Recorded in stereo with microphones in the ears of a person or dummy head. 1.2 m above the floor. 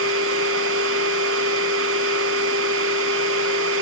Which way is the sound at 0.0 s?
80° right.